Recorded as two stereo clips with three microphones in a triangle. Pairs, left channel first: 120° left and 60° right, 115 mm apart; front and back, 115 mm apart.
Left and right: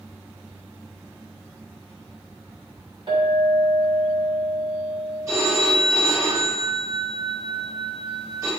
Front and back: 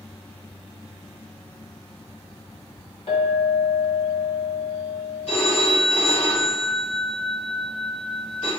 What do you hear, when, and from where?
3.1 s a clink: 20° right, 1.6 m
5.3 s a phone ringing: straight ahead, 1.9 m